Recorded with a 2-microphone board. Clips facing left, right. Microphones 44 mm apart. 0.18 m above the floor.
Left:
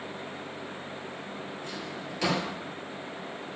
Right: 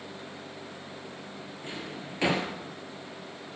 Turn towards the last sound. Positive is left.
turn(degrees=-30)  # may be behind; listen again after turning